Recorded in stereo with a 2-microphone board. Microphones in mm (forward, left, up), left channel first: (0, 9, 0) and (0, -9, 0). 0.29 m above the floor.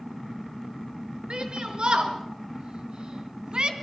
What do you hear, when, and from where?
1.3 s a shout: 60° right (ahead or behind), 4.5 m; by 3.7 s 55° right (ahead or behind), 2.5 m